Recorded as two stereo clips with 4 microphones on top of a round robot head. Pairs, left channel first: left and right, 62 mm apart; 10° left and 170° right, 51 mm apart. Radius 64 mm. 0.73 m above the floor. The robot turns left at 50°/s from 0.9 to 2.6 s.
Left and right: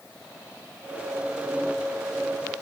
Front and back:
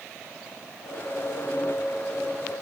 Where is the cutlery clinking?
I don't hear cutlery clinking.